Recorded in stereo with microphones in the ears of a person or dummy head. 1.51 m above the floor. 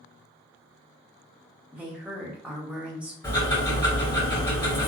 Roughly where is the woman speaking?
Centre.